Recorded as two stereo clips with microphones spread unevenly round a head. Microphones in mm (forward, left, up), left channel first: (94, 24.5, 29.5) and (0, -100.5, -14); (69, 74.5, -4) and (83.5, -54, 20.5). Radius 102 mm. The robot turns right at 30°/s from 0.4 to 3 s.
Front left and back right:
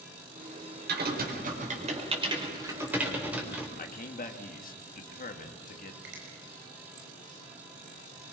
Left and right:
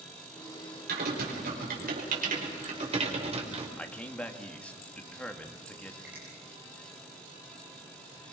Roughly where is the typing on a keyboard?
Right.